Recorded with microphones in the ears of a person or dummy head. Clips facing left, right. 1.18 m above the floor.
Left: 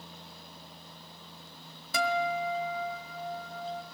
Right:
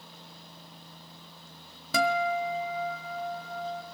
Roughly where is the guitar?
Right.